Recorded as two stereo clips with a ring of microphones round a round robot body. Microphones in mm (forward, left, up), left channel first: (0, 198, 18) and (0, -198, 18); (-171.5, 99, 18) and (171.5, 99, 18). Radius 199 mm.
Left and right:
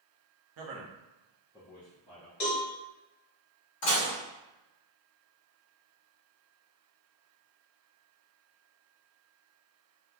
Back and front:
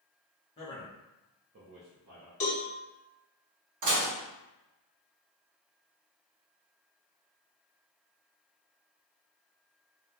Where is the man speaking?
105° right, 0.8 m; by 2.3 s 45° left, 1.0 m.